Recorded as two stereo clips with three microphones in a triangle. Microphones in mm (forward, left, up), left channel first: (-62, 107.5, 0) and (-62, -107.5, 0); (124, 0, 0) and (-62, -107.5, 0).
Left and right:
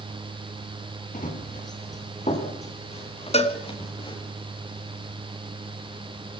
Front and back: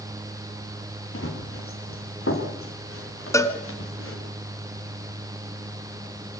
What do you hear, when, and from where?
1.1 s running footsteps: 40° left, 6 m; by 4.2 s 25° left, 7.5 m
3.3 s a cowbell: 90° left, 1.7 m